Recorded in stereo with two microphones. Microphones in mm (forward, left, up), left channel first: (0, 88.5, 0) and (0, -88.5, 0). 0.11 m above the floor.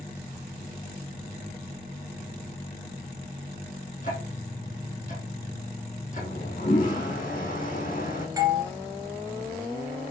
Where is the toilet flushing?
50° left (ahead or behind), 3 m.